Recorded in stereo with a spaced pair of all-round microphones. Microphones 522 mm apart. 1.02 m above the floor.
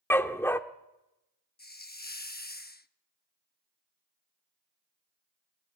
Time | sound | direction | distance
0.1 | a dog barking | 5° left (ahead or behind) | 0.9 m
1.6 | a hiss | 20° left (ahead or behind) | 0.7 m